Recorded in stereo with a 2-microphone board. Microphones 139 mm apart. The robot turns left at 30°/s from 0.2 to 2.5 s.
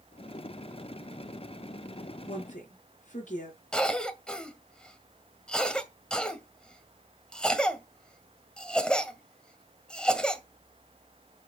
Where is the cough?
5° left (ahead or behind), 1.9 m.